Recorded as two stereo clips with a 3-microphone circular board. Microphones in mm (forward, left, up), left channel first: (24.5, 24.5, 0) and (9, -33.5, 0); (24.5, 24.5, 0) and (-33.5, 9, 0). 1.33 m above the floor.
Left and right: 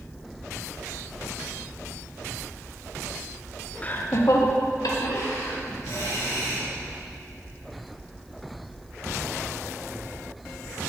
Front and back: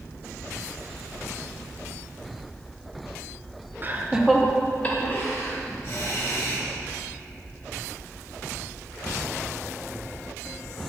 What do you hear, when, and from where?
3.8 s laughter: 140° left, 0.8 m; by 6.6 s 50° left, 3 m